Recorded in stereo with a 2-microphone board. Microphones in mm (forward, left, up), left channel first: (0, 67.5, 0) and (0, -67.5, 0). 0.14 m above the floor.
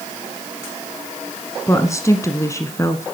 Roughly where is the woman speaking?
Left.